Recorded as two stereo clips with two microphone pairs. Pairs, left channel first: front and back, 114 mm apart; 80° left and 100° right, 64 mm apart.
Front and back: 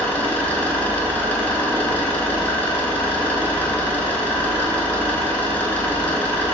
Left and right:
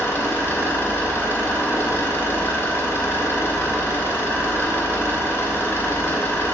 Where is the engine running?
70° left, 0.7 m.